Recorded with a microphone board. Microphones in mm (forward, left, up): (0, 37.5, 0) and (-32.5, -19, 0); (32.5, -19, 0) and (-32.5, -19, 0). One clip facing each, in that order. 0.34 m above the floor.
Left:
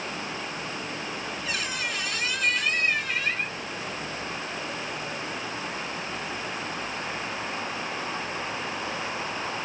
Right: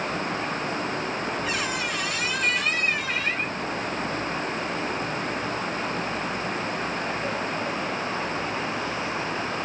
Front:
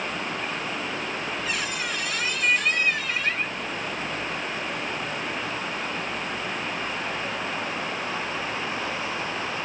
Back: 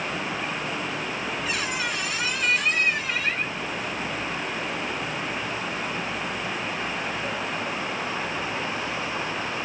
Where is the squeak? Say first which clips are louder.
Right 4 dB, back 1 dB; 105° right, 1.9 m.